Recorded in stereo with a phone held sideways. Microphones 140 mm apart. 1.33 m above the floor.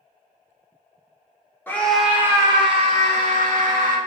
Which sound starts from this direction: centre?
A scream, at 1.7 s.